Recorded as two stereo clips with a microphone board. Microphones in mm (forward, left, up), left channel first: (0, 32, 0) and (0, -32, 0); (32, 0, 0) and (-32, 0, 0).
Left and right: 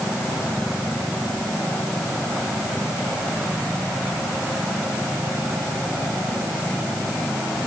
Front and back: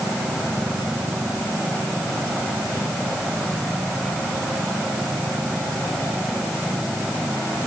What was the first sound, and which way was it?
Only background noise.